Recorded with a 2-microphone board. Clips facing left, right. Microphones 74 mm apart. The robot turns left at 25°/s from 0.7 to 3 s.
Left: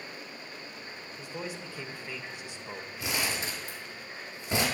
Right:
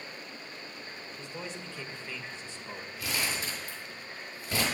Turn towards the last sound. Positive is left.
turn(degrees=25)  # may be behind; listen again after turning